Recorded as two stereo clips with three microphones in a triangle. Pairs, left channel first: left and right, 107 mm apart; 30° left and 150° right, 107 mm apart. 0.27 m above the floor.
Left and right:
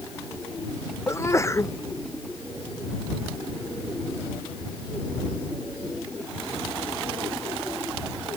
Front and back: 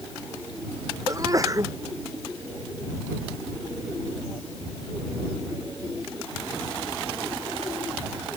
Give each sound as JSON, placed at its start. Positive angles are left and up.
{"t": 1.1, "sound": "a sneeze", "azimuth_deg": 155}